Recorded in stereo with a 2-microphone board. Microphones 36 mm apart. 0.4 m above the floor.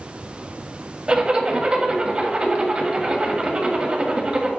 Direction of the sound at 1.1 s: 25° right (ahead or behind).